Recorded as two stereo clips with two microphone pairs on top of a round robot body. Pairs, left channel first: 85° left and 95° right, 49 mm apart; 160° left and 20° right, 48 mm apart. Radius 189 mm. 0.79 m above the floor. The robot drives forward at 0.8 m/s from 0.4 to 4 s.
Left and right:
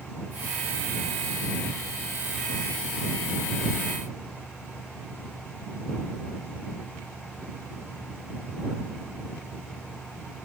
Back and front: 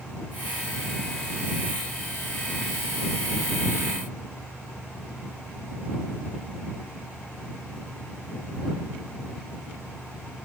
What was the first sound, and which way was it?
Only background noise.